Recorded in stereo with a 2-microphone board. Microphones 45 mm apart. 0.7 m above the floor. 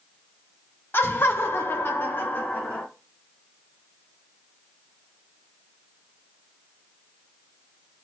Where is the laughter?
55° left (ahead or behind), 1.2 m; by 2.9 s 35° left (ahead or behind), 1.3 m.